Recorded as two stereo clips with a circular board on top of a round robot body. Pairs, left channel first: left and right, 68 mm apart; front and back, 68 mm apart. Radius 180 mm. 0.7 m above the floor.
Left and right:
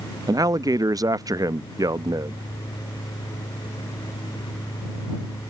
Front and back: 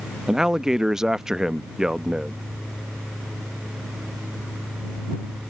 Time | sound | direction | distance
0.3 | a man speaking | 100° right | ?